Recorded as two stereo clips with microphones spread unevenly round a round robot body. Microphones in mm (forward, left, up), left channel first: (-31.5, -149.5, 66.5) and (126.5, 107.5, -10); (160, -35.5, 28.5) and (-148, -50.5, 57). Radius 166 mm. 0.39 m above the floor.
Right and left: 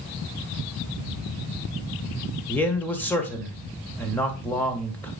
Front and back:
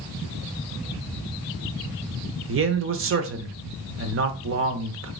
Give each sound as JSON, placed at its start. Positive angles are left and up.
{"t": 2.5, "sound": "a man speaking", "azimuth_deg": 145, "distance_m": 1.2}